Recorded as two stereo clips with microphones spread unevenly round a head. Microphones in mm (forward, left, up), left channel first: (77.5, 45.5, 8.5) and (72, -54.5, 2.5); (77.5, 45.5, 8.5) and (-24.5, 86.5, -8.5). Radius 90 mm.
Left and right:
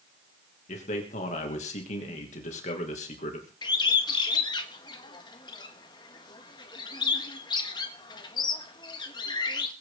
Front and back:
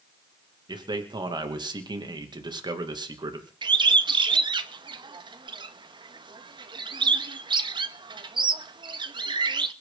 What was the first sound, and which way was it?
A man speaking, 110° left.